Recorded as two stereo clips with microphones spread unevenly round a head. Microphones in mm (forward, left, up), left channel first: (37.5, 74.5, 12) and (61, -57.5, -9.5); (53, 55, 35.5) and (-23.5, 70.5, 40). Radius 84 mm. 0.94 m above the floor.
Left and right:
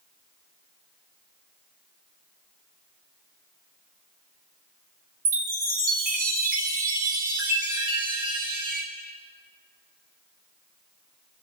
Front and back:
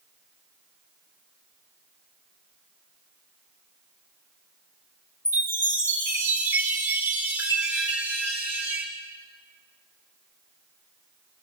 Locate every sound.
5.2 s a chime: 75° right, 3.5 m